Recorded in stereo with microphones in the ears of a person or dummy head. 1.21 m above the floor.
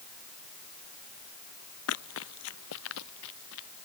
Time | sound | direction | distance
1.9 | running footsteps | 75° left (ahead or behind) | ?